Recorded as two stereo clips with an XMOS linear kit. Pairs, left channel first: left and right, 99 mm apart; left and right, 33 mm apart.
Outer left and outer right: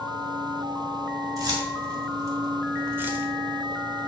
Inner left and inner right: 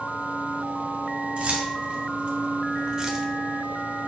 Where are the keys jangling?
45° right (ahead or behind), 3 m; by 3.2 s 15° right (ahead or behind), 1.0 m.